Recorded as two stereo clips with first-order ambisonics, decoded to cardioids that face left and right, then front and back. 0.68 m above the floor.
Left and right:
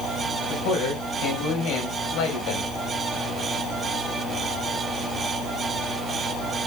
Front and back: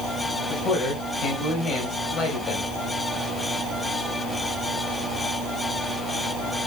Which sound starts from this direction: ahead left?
A man speaking, at 0.5 s.